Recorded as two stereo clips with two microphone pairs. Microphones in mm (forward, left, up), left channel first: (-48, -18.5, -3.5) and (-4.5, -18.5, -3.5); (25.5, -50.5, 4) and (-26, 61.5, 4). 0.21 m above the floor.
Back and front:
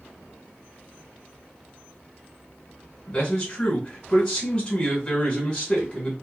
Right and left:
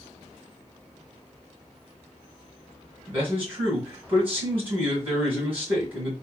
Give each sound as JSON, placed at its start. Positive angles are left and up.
{"t": 3.1, "sound": "a man speaking", "azimuth_deg": 160, "distance_m": 1.5}